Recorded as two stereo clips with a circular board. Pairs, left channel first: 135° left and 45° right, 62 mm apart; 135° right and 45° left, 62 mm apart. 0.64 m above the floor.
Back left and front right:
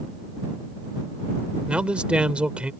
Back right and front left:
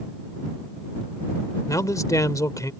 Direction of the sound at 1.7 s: 115° right.